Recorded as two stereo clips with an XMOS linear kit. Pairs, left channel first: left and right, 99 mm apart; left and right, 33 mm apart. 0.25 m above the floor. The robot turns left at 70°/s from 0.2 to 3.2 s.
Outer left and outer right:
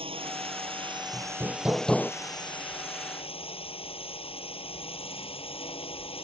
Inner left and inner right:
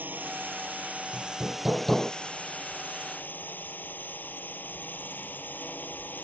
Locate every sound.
0.0 s a drone: 75° right; by 6.2 s 75° left
1.1 s hammering: 130° right; by 2.1 s 160° left